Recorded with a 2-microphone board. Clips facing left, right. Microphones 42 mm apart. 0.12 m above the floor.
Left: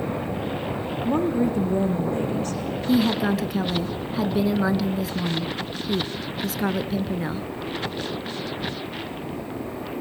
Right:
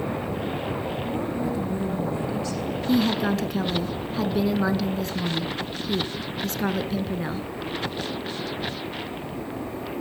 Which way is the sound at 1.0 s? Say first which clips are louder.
Left 10 dB; 55° left (ahead or behind).